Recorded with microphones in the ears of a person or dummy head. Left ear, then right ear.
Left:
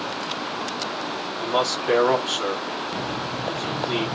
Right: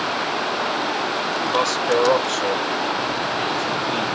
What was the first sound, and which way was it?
A man speaking, 60° left (ahead or behind).